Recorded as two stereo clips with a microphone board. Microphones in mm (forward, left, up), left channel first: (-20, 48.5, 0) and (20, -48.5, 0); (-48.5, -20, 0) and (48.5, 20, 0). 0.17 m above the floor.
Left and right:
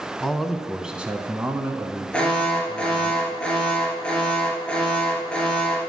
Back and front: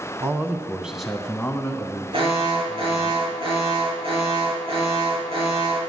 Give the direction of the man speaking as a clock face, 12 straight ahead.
11 o'clock.